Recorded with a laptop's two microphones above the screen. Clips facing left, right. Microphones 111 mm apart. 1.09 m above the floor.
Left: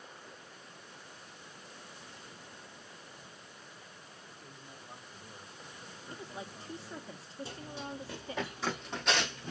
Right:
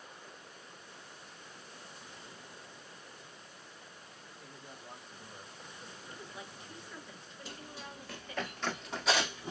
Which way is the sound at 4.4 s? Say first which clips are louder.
Right 4 dB; 50° right (ahead or behind).